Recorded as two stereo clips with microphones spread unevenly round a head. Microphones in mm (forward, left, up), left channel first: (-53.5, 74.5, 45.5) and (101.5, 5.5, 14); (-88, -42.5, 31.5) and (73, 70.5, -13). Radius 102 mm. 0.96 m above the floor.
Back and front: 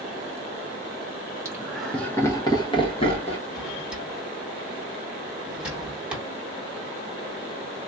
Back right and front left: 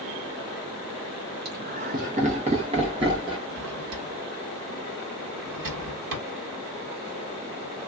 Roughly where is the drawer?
Ahead left.